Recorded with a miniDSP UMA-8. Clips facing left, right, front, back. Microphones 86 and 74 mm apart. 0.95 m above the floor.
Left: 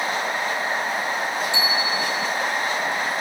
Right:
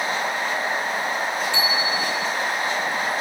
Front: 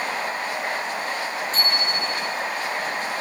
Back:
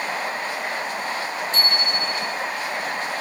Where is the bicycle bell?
160° left, 3.5 m.